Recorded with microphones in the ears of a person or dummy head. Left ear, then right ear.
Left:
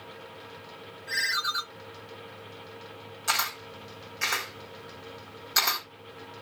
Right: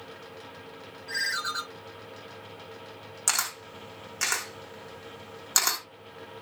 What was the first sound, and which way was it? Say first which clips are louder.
A ringtone: left 2 dB; 20° left (ahead or behind).